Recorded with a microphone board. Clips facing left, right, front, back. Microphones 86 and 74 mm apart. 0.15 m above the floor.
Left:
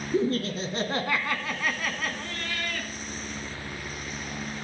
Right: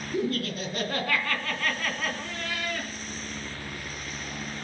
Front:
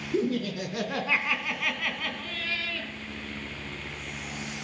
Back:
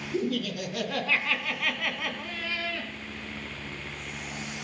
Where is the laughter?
45° left, 2.5 m; by 2.9 s 145° right, 2.0 m.